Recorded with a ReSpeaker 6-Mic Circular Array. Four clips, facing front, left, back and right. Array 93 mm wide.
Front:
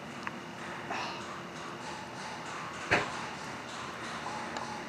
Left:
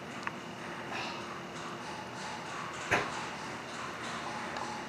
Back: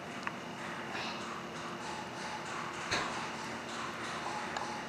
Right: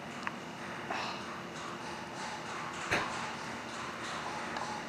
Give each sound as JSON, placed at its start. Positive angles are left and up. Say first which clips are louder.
{"t": 0.9, "sound": "breathing", "louder": "right 3 dB, front 3 dB", "azimuth_deg": -50, "distance_m": 4.5}
{"t": 2.9, "sound": "a whoosh", "louder": "left 3 dB, front 7 dB", "azimuth_deg": 10, "distance_m": 0.9}